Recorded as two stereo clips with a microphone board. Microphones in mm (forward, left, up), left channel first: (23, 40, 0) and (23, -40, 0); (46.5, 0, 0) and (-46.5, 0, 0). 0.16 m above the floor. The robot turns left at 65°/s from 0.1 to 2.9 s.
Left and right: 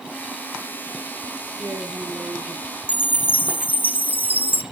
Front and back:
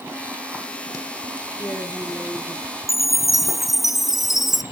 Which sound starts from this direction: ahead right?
A woman speaking, at 1.6 s.